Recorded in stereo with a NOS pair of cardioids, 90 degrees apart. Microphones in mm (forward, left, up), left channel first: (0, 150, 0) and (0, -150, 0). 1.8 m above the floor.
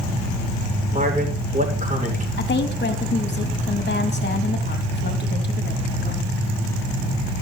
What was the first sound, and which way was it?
A man speaking, 25° right.